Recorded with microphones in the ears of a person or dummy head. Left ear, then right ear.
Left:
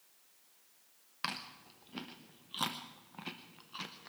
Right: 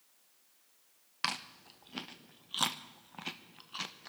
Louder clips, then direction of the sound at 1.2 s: Right 4 dB; 25° right (ahead or behind).